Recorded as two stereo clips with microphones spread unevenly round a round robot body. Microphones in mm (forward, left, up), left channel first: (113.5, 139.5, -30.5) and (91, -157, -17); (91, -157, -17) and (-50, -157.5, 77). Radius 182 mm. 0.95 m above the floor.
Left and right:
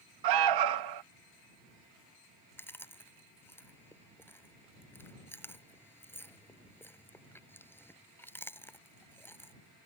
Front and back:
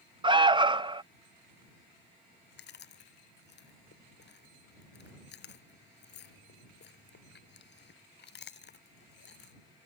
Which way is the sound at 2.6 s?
5° left.